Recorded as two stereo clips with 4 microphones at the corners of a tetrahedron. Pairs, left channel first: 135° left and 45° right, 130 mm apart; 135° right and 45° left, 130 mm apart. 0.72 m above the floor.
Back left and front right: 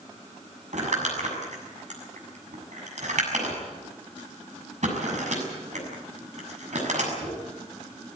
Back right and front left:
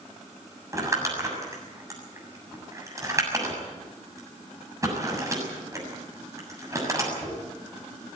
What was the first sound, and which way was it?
Crumpling, 20° right.